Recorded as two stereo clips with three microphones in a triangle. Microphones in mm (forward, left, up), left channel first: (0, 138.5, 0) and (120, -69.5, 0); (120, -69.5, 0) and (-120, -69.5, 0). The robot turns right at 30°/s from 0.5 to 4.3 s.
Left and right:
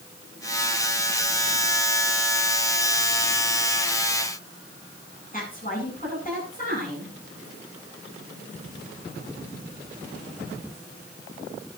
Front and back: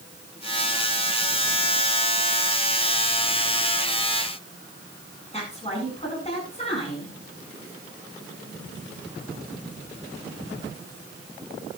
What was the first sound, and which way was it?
A woman speaking, 65° left.